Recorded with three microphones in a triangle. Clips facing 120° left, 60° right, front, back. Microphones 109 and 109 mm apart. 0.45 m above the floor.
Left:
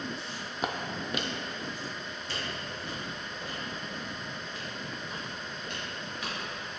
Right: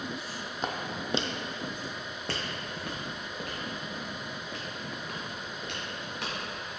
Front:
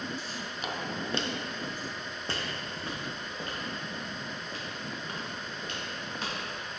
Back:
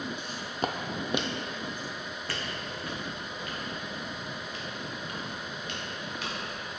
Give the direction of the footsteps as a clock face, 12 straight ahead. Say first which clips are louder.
Even, back 5 dB; 6 o'clock.